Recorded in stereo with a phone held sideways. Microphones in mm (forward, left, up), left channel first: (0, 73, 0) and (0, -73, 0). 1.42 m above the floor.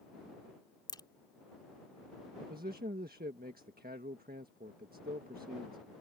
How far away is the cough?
No cough in this recording.